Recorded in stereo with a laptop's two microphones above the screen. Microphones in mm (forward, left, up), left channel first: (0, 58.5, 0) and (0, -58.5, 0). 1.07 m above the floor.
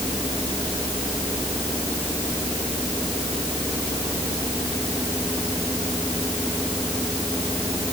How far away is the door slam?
I don't hear a door slam.